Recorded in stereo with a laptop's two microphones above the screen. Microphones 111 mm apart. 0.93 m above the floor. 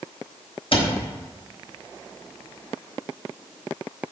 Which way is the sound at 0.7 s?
55° left (ahead or behind).